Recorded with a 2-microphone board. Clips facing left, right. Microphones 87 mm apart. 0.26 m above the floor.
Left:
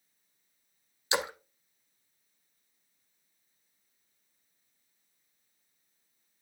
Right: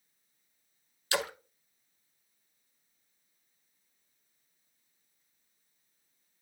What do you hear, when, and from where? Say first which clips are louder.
1.1 s a splash: left 1 dB; 20° left (ahead or behind), 0.6 m